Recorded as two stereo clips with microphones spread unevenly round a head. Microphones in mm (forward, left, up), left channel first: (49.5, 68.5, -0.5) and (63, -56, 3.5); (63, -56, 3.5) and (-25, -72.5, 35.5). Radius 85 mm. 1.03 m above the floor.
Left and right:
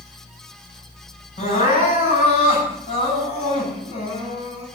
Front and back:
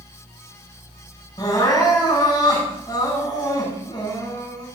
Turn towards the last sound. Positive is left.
turn(degrees=70)